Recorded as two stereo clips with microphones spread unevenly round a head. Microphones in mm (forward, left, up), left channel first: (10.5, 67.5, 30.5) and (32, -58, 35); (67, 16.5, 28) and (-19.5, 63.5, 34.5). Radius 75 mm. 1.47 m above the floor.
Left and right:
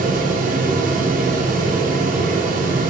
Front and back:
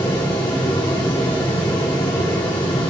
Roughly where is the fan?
Right.